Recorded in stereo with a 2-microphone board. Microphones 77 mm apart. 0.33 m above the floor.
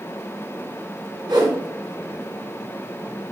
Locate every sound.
1.3 s a whoosh: 70° right (ahead or behind), 2.5 m